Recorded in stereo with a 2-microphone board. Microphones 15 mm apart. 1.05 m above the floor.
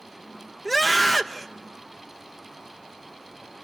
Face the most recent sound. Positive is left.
turn(degrees=10)  # may be behind; listen again after turning